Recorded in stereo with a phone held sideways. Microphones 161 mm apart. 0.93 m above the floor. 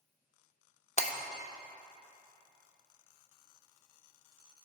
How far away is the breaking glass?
About 1.0 m.